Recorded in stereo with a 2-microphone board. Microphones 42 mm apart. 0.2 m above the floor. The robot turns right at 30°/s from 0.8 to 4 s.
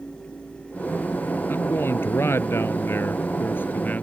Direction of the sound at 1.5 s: 60° left.